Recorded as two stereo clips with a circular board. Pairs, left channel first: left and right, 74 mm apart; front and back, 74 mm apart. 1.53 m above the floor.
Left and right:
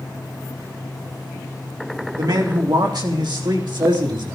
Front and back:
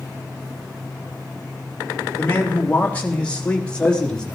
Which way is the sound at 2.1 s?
65° right.